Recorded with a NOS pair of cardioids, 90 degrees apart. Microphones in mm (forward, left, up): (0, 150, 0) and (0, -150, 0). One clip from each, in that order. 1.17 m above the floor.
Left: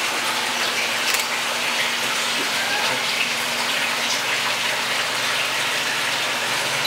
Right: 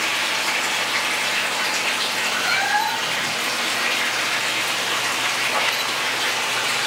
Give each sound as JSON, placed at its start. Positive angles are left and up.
{"t": 2.4, "sound": "a cat meowing", "azimuth_deg": -60, "distance_m": 2.0}